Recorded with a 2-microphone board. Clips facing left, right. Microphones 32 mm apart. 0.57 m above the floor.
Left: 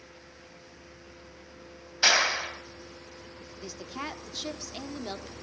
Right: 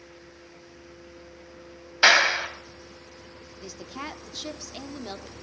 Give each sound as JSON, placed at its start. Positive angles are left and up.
{"t": 2.0, "sound": "a clap", "side_deg": -35, "distance_m": 2.5}
{"t": 3.6, "sound": "a woman speaking", "side_deg": 0, "distance_m": 0.9}